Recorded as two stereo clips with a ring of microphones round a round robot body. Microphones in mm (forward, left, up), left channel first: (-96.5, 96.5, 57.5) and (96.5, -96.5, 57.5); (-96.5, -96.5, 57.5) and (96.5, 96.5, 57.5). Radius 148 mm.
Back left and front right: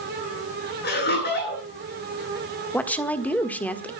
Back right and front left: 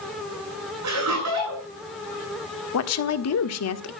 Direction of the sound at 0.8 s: 80° left.